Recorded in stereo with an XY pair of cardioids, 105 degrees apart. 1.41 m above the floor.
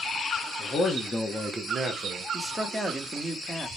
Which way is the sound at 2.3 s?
Straight ahead.